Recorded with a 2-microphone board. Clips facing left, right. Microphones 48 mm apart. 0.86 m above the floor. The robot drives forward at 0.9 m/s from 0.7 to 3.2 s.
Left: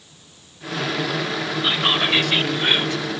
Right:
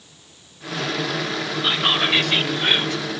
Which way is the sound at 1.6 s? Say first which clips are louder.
Even; centre (ahead or behind).